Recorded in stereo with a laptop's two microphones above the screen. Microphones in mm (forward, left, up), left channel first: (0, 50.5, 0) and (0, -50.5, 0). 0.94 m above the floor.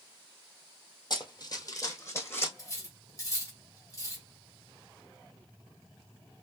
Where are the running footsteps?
45° left (ahead or behind), 1.4 m; by 2.5 s 20° left (ahead or behind), 1.9 m.